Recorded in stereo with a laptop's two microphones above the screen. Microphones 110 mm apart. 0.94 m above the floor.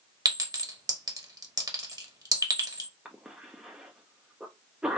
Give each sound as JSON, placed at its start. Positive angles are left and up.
{"t": 0.2, "sound": "a clink", "side_deg": -35, "distance_m": 1.0}
{"t": 3.0, "sound": "a cough", "side_deg": -10, "distance_m": 0.6}